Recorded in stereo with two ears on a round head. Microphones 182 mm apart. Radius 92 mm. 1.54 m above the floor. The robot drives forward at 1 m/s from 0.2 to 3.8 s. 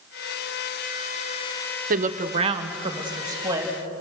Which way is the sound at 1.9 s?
40° right (ahead or behind).